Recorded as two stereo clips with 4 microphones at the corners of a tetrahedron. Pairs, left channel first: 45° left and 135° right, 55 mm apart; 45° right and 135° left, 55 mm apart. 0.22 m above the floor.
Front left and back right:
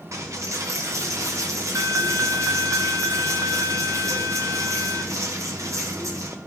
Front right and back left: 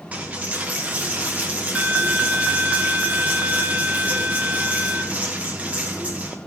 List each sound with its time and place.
0.1 s a dropped coin: 160° right, 1.4 m